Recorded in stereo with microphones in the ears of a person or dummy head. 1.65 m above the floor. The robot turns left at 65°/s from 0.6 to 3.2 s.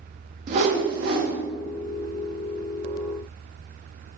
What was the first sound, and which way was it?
A whoosh, 60° right.